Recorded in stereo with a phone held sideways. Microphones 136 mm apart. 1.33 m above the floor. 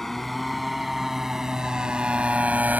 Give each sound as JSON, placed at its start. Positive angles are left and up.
{"t": 0.0, "sound": "a motorcycle", "side_deg": 5}